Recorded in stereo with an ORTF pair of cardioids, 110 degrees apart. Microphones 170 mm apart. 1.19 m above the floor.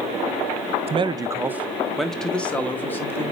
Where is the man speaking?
40° right, 0.7 m; by 3.3 s 15° left, 2 m.